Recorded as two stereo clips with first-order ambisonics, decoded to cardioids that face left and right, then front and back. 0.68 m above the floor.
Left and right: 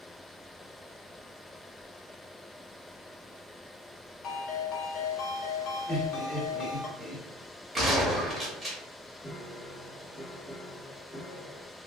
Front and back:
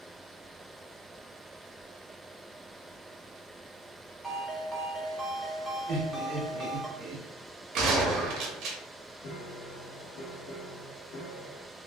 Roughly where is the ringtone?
Left.